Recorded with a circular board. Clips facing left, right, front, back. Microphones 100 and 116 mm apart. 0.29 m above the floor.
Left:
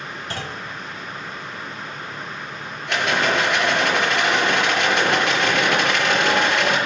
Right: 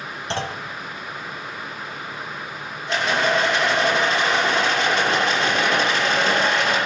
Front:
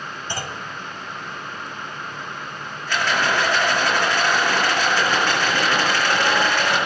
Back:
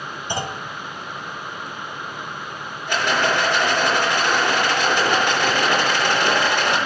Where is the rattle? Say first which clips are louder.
Even, back 1 dB; 105° left, 5.5 m.